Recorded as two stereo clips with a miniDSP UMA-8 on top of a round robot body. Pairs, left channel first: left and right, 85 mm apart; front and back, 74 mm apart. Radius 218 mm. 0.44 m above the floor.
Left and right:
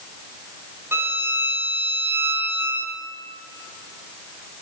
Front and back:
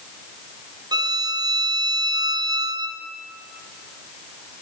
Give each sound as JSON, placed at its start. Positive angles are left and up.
{"t": 0.9, "sound": "a violin", "azimuth_deg": -155, "distance_m": 2.5}